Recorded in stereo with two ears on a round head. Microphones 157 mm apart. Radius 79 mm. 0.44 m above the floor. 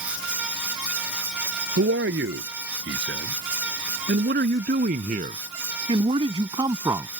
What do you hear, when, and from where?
1.8 s a man speaking: 80° right; by 7.1 s 15° right (ahead or behind)